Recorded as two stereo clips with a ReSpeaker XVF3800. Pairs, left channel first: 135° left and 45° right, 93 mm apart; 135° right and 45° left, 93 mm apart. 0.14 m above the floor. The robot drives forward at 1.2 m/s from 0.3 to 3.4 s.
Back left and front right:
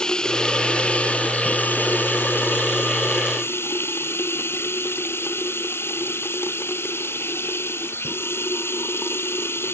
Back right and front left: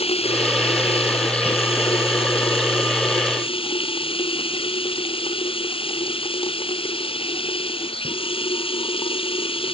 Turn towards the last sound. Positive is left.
turn(degrees=-160)